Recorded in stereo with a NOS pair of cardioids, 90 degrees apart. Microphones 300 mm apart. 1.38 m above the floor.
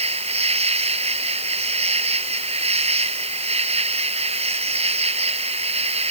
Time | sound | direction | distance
0.0 | an insect | 20° right | ?